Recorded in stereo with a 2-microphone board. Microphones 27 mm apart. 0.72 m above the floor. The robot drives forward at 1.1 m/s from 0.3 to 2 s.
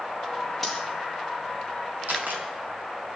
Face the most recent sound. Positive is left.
turn(degrees=-85)